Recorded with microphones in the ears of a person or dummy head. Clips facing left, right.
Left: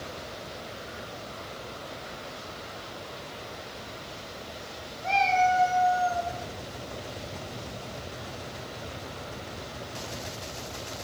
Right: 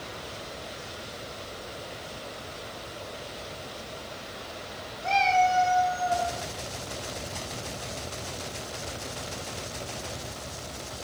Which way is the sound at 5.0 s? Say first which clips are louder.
Right 1 dB; centre (ahead or behind).